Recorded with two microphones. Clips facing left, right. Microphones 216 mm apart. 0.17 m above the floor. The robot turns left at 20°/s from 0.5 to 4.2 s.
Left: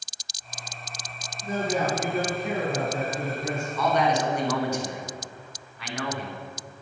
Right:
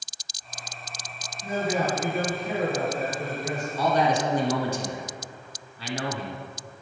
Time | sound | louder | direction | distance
1.4 | a man speaking | even | 175° right | 3.5 m
3.8 | a man speaking | right 1 dB | 35° right (ahead or behind) | 1.3 m